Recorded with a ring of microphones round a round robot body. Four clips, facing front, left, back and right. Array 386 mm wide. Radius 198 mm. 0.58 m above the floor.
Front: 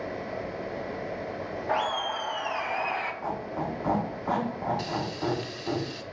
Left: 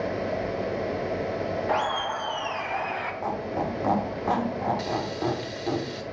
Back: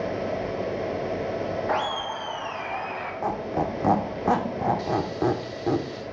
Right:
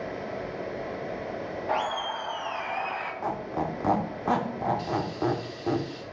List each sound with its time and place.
1.7 s laughter: 150° left, 0.9 m; by 3.1 s 35° left, 1.6 m
3.2 s a squeak: 170° right, 1.0 m
4.8 s frying: 55° left, 0.8 m